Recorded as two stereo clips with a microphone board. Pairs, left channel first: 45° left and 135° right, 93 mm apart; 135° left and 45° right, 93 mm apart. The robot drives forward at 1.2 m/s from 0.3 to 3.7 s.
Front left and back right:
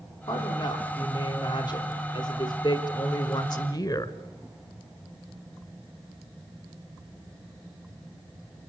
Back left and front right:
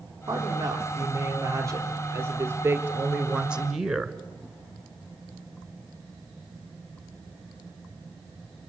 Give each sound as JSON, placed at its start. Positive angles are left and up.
{"t": 0.3, "sound": "a woman speaking", "azimuth_deg": 10, "distance_m": 5.0}